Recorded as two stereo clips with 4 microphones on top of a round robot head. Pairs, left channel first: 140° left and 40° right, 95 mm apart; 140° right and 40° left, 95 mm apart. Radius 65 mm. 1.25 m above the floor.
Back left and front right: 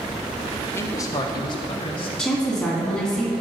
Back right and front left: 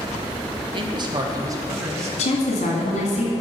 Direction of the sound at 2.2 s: 135° right.